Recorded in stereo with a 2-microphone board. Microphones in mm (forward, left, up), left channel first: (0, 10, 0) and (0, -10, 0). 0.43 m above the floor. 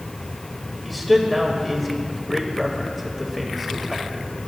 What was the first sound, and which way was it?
A man speaking, 5° left (ahead or behind).